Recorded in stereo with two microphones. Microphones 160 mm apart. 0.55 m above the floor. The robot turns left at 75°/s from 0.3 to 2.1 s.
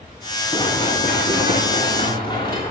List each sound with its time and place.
0.5 s running footsteps: 20° left (ahead or behind), 4.5 m; by 2.7 s 25° left (ahead or behind), 7 m